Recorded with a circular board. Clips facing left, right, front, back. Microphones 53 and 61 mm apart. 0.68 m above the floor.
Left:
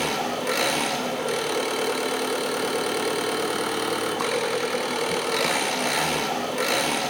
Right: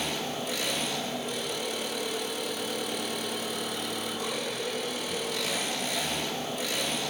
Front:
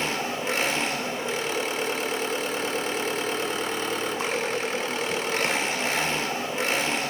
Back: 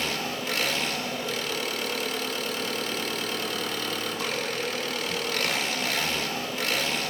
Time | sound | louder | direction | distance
0.0 | an engine running | left 7 dB, front 3 dB | 65° left | 1.4 m